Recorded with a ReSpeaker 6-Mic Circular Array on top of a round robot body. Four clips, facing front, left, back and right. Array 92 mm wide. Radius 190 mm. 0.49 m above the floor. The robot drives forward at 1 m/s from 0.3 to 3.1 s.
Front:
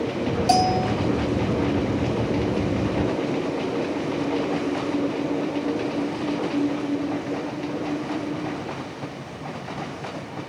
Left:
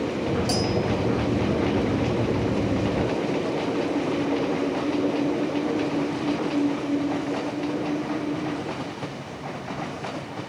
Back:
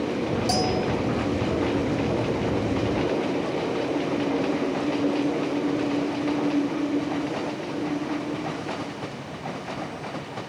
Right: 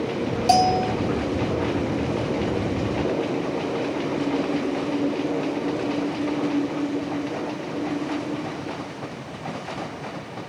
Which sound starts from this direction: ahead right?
A bell, at 0.5 s.